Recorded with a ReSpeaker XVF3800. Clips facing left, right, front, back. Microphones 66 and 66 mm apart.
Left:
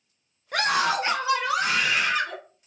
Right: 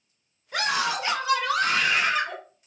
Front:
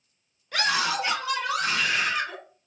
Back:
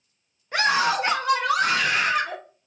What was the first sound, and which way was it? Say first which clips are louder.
A scream: left 3 dB, back 4 dB; 120° left.